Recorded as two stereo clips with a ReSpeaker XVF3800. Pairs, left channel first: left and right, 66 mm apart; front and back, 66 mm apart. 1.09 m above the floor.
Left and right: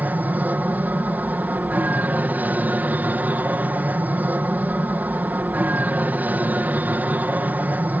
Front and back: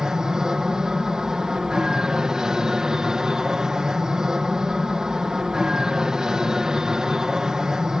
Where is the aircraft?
110° right.